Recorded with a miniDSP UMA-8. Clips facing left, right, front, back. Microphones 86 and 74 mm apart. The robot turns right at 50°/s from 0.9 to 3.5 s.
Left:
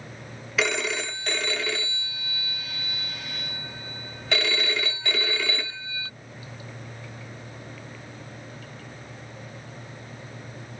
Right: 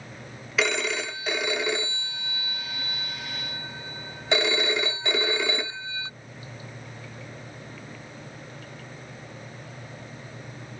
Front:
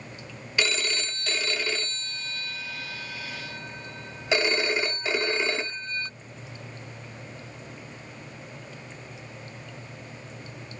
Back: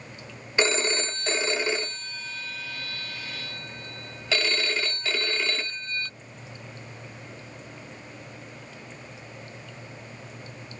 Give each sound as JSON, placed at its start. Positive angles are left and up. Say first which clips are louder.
{"t": 0.6, "sound": "a phone ringing", "louder": "even, back 4 dB", "azimuth_deg": 180}